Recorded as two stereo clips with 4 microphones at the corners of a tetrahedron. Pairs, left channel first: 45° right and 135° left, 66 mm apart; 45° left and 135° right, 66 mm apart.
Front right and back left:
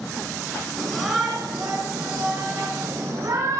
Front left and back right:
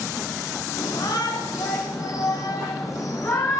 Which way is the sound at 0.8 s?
35° left.